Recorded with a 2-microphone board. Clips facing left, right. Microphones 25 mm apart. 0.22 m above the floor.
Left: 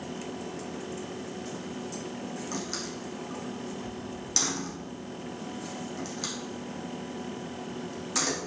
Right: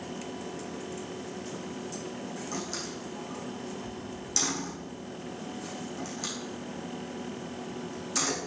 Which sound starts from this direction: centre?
A door slam, at 2.5 s.